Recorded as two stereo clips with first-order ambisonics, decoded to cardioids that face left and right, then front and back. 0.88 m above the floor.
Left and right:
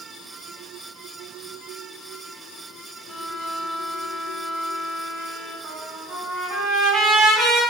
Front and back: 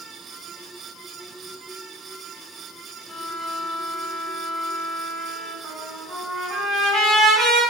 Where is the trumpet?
130° right, 1.5 m.